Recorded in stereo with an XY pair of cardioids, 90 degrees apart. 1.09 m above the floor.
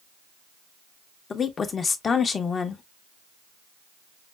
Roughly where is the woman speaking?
Ahead left.